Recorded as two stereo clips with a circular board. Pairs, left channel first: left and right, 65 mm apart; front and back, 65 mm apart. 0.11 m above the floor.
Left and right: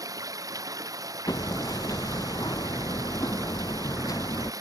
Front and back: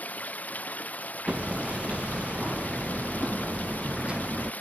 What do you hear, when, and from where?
0.0 s running water: 65° right
1.3 s hammering: 105° left